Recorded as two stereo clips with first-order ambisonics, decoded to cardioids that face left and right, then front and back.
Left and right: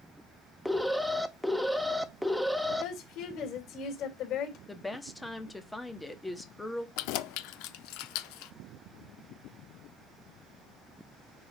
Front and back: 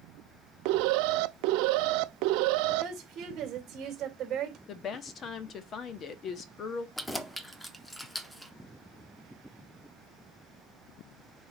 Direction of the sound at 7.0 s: 85° left.